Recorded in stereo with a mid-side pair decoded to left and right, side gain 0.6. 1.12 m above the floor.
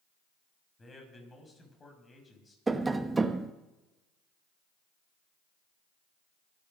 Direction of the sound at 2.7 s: 20° right.